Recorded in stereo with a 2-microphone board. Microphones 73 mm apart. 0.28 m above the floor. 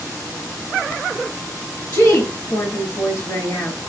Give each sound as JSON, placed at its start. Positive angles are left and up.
{"t": 1.9, "sound": "a woman speaking", "side_deg": 35, "distance_m": 2.5}